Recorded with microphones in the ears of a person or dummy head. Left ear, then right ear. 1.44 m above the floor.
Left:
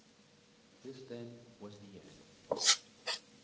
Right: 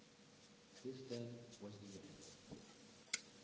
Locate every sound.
0.8 s a man speaking: 45° left (ahead or behind), 1.9 m